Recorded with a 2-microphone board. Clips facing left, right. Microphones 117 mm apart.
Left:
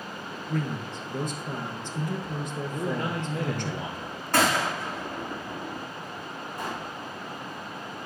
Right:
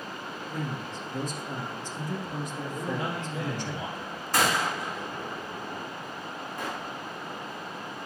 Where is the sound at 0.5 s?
60° left (ahead or behind), 2.5 m.